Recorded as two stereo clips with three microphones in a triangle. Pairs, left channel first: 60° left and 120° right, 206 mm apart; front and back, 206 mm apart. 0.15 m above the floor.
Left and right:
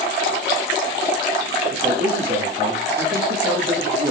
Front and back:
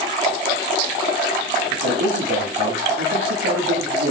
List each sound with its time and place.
1.7 s a man speaking: 170° right, 8 m